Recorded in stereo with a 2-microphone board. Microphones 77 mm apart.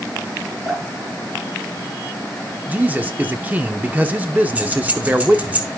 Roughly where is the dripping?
Centre.